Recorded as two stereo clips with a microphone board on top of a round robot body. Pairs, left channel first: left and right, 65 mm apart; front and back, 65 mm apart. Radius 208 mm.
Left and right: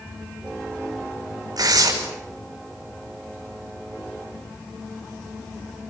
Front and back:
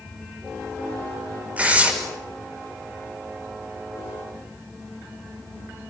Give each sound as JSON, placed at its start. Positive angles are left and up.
{"t": 1.6, "sound": "tearing paper", "azimuth_deg": -110, "distance_m": 6.0}